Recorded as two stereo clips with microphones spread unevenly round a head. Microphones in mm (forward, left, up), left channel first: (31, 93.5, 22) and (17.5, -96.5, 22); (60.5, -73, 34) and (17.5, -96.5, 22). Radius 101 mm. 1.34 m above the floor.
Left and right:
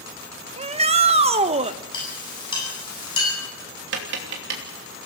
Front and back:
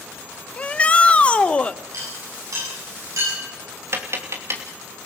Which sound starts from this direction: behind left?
A clink, at 1.9 s.